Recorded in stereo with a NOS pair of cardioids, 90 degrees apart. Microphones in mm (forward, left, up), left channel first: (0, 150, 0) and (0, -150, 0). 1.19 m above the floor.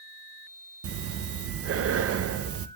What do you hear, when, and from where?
0.8 s breathing: 50° right, 0.7 m